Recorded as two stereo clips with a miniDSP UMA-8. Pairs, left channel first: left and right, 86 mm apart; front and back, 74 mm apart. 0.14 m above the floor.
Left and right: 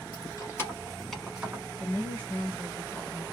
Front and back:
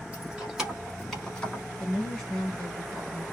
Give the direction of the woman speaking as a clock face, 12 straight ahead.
10 o'clock.